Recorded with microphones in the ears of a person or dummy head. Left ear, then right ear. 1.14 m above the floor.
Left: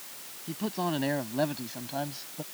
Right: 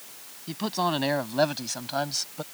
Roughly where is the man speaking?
Right.